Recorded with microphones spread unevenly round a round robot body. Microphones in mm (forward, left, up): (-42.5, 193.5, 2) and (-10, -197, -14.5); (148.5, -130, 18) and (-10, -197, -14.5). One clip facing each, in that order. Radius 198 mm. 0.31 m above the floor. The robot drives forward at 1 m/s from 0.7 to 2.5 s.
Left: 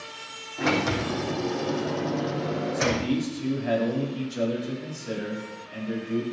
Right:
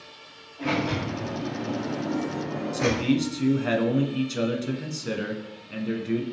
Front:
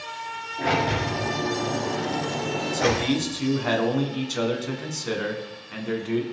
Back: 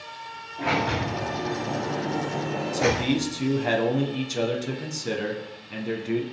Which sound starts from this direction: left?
A sliding door, at 0.6 s.